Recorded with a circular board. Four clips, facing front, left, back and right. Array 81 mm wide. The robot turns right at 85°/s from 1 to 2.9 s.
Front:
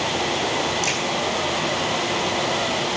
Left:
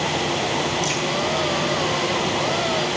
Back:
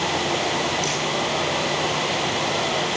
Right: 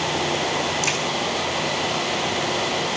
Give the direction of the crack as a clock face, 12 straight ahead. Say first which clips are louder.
Even, even; 2 o'clock.